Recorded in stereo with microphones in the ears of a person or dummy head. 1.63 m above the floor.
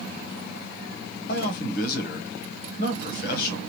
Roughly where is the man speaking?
Left.